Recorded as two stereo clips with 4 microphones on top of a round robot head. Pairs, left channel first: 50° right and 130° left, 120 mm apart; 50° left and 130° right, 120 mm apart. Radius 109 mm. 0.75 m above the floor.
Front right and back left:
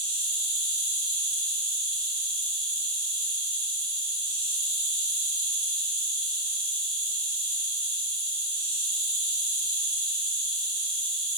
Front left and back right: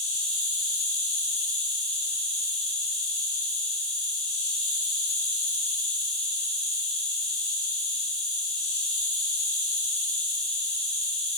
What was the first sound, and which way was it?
An insect, straight ahead.